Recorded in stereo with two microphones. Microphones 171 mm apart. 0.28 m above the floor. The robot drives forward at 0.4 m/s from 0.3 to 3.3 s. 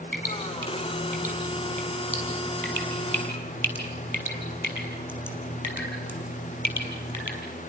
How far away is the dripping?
About 7.5 m.